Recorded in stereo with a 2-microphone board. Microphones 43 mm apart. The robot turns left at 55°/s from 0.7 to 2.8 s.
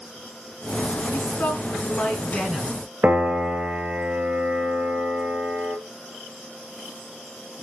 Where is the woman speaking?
80° left, 4 m; by 2.8 s 10° right, 4 m.